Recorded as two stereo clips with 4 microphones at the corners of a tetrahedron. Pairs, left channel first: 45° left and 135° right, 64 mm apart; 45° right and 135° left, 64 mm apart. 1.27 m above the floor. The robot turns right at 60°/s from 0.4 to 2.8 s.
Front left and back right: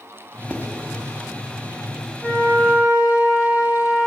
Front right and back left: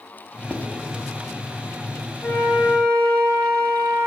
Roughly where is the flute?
Ahead right.